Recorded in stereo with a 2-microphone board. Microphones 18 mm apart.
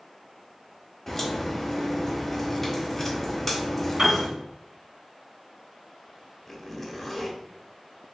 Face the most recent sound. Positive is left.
turn(degrees=10)  # may be behind; listen again after turning